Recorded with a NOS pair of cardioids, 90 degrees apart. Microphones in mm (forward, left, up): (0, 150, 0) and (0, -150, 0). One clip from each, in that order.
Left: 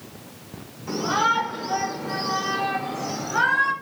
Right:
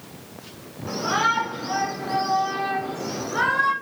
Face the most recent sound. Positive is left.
turn(degrees=5)